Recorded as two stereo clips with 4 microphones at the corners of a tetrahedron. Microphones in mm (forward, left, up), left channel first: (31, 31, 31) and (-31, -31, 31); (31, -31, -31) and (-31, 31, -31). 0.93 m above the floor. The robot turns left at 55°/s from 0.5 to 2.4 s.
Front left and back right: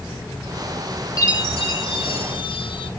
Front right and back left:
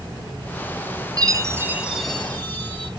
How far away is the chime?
About 1.6 m.